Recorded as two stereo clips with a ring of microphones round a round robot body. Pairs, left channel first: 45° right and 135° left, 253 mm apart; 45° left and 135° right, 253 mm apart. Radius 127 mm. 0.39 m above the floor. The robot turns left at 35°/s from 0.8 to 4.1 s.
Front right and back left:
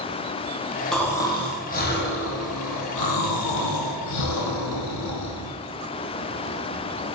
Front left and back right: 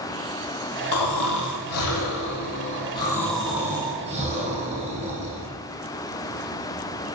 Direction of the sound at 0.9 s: 45° left.